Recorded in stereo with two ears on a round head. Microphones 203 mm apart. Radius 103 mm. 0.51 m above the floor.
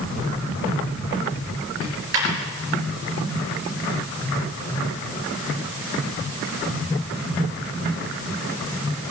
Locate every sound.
1.8 s a dropped coin: 70° right (ahead or behind), 4 m